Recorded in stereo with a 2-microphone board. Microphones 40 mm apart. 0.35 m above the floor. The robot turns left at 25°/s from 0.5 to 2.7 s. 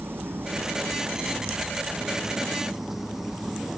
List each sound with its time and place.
0.0 s an engine running: 115° right; by 3.8 s 170° right